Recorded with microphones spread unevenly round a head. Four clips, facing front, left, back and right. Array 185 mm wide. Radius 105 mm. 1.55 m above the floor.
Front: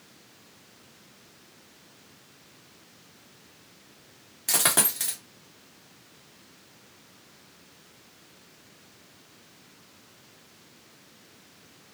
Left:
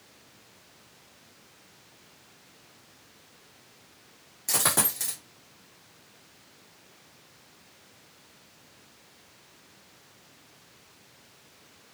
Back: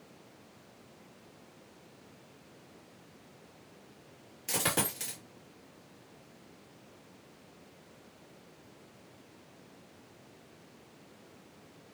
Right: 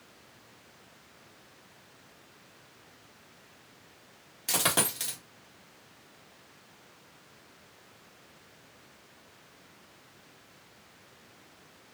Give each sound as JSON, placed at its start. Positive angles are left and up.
{"t": 4.5, "sound": "a dropped coin", "azimuth_deg": -10, "distance_m": 1.2}